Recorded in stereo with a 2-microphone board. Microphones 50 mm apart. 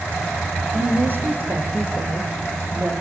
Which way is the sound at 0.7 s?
45° right (ahead or behind).